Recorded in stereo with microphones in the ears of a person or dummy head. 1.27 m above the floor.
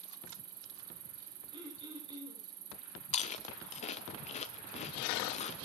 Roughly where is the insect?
Right.